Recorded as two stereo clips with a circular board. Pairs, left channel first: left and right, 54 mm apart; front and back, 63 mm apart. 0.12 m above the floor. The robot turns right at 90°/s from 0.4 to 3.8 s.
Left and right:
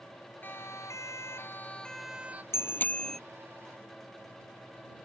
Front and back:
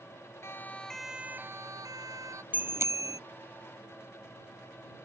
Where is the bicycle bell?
115° left; by 3.2 s 175° left.